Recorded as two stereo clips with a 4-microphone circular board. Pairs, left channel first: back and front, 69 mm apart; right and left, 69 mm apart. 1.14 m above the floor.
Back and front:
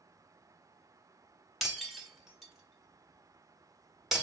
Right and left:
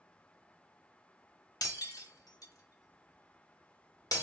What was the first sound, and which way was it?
Breaking glass, 85° right.